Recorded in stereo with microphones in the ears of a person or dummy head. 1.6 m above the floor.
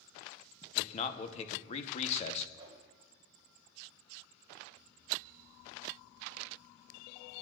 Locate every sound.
0.8 s a man speaking: 35° left (ahead or behind), 1.1 m
2.6 s a whoosh: 30° right (ahead or behind), 5 m